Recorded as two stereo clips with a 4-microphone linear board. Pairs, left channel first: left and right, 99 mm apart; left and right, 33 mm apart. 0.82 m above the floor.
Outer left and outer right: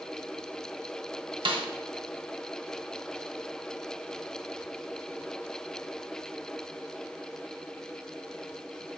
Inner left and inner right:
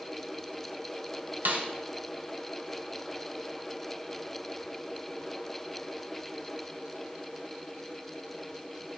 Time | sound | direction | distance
1.4 | a snare drum | 60° right (ahead or behind) | 0.8 m